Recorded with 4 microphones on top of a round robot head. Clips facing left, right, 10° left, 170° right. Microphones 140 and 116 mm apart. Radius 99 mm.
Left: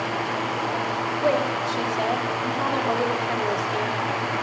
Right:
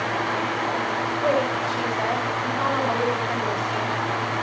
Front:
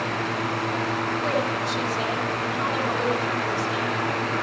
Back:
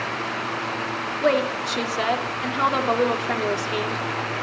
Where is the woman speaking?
160° left, 4 m.